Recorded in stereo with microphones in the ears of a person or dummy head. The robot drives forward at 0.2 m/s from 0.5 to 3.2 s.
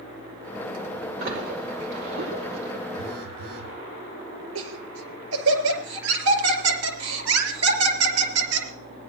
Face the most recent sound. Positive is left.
turn(degrees=-85)